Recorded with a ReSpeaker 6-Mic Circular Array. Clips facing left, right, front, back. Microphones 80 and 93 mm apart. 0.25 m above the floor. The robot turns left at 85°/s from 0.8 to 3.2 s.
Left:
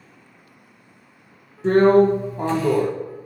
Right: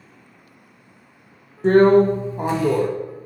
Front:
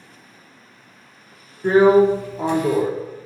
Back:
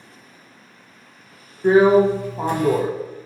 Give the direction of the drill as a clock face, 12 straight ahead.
3 o'clock.